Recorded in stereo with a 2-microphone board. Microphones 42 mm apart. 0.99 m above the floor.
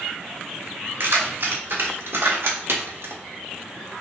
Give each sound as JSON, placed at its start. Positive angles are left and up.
{"t": 1.0, "sound": "keys jangling", "side_deg": -65, "distance_m": 1.9}